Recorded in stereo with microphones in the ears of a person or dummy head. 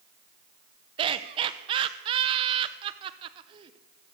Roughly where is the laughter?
Right.